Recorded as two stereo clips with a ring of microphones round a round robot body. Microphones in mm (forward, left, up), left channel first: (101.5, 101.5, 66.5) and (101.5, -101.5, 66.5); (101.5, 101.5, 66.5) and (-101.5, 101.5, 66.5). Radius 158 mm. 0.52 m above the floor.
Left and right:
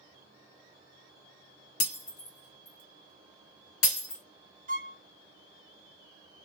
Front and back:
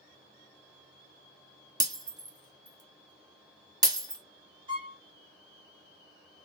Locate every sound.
1.8 s breaking glass: 105° left, 1.6 m
4.7 s a violin: 120° right, 1.3 m